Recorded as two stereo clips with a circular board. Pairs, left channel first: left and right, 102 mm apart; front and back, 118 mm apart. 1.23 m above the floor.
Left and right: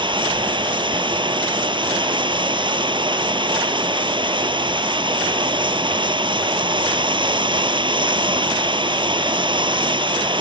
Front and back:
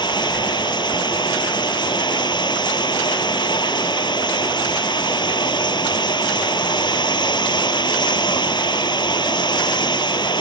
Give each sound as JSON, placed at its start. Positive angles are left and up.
{"t": 0.0, "sound": "running water", "azimuth_deg": -50}